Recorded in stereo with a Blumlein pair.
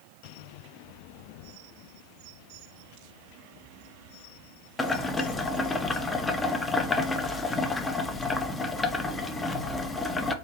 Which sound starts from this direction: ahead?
Boiling, at 4.8 s.